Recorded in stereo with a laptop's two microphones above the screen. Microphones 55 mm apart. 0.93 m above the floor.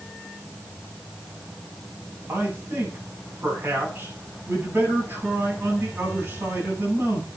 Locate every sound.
2.3 s a man speaking: 45° right (ahead or behind), 9 m